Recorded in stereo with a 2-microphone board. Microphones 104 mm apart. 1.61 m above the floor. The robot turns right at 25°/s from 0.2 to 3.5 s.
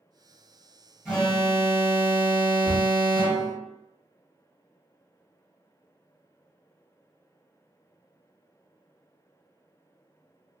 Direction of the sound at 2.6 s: Centre (ahead or behind).